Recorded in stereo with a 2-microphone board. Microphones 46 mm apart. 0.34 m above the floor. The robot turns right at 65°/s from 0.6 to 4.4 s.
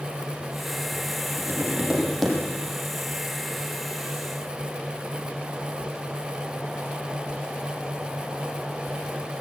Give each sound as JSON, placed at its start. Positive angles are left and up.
{"t": 1.4, "sound": "tapping", "azimuth_deg": -55, "distance_m": 8.5}